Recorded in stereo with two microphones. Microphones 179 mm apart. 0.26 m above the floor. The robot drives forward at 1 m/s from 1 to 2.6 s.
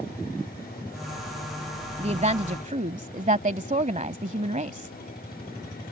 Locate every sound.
2.0 s a woman speaking: 35° right (ahead or behind); by 5.0 s 45° right (ahead or behind)